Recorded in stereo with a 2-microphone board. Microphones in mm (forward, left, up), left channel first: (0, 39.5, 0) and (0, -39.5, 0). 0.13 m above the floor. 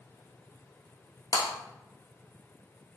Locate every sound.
1.3 s breaking glass: 60° left (ahead or behind), 1.2 m